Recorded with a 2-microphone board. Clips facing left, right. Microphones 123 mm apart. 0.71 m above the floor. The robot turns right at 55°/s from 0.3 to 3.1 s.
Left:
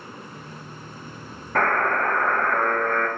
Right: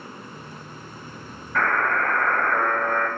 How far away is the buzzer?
About 1.2 m.